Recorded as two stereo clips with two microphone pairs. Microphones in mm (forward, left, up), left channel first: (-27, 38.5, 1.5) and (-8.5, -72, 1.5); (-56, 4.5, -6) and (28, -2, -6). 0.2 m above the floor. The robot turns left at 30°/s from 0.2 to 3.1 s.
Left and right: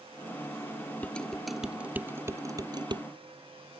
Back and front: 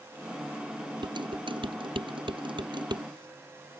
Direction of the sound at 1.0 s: 25° left.